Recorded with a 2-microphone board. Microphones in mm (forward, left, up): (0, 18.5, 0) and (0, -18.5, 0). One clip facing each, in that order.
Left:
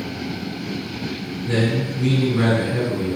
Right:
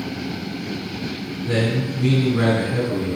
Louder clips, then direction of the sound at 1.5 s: Left 1 dB; 10° right (ahead or behind).